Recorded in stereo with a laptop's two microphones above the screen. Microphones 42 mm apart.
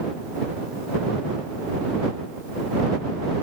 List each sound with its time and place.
Only background noise.